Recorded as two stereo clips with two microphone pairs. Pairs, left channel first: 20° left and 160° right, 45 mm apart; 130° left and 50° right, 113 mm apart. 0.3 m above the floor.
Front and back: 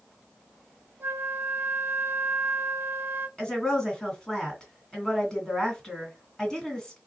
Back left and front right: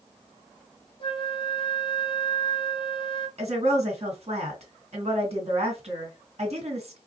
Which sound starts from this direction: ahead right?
A woman speaking, at 3.4 s.